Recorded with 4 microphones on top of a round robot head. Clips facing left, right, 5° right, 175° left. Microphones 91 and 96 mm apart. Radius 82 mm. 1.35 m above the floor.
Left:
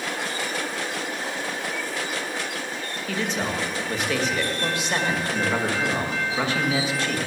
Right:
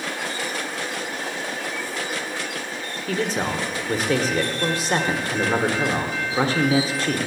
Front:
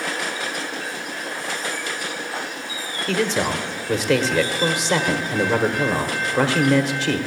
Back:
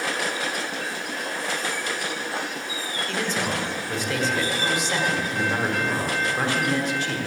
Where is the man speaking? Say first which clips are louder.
Right 3 dB, front 6 dB; 30° right, 1.1 m.